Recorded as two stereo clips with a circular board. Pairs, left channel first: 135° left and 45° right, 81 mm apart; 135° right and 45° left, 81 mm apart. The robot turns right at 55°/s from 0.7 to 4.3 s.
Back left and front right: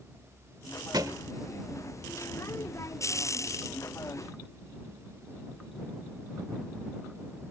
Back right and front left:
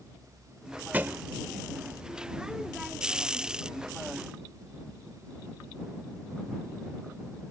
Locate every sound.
0.9 s a thud: 20° right; by 1.2 s 5° right